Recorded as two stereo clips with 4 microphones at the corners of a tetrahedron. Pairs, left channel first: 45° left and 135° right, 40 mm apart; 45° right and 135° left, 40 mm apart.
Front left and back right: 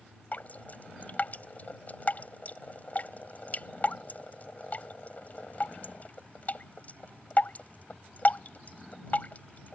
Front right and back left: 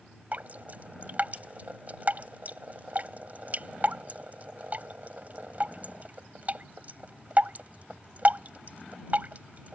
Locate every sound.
0.3 s dripping: 90° left